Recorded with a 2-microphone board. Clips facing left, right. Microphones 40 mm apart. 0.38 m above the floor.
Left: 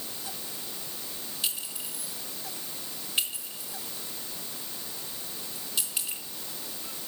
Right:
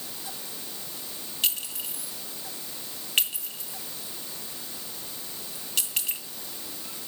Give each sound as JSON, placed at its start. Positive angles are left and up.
{"t": 1.4, "sound": "a clink", "side_deg": -70, "distance_m": 2.5}